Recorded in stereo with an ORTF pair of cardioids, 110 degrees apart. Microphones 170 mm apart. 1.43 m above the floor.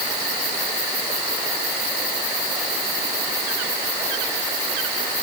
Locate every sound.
Only background noise.